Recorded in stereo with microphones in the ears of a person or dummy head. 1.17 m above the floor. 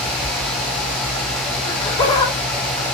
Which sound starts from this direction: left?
Laughter, at 1.6 s.